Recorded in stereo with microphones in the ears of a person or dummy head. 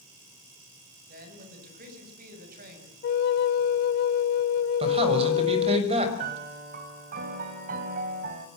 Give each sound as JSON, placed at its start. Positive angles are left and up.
{"t": 1.1, "sound": "a man speaking", "side_deg": -50, "distance_m": 7.5}
{"t": 3.0, "sound": "a flute", "side_deg": 50, "distance_m": 0.7}
{"t": 4.8, "sound": "a man speaking", "side_deg": -35, "distance_m": 6.5}
{"t": 6.2, "sound": "a piano", "side_deg": -45, "distance_m": 3.0}